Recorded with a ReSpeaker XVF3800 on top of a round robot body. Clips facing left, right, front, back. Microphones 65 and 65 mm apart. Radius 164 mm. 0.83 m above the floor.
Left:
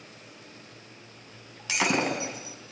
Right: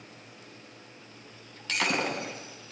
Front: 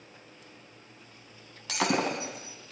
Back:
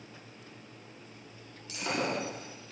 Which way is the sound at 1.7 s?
10° left.